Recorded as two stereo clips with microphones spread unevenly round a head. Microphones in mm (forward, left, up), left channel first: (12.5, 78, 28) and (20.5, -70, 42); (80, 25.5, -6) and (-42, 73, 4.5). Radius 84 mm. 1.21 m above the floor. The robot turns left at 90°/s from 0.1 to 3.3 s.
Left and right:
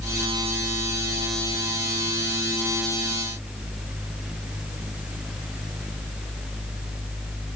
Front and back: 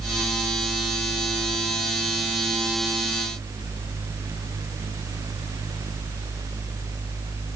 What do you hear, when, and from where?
Only background noise.